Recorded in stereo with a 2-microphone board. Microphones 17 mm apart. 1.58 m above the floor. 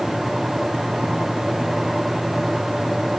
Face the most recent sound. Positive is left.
No sound to turn to.